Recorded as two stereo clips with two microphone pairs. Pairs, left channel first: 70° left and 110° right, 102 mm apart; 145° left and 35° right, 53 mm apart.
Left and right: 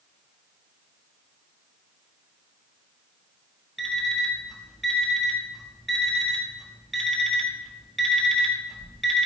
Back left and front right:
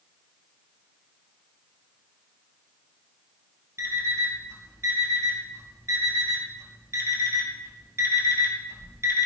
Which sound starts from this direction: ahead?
An alarm clock, at 3.8 s.